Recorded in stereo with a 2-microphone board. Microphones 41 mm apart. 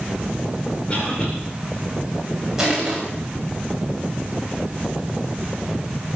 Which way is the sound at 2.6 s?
15° right (ahead or behind).